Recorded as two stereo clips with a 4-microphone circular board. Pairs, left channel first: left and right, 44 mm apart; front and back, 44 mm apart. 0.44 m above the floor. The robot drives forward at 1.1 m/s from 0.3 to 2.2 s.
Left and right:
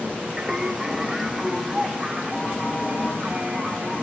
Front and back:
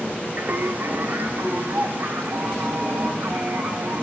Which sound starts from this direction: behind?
Singing, at 0.4 s.